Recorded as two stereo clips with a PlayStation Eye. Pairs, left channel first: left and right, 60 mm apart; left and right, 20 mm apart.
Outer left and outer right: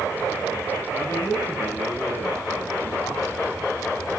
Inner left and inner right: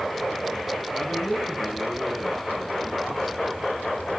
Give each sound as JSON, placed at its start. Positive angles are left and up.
{"t": 0.9, "sound": "a man speaking", "side_deg": 65, "distance_m": 4.0}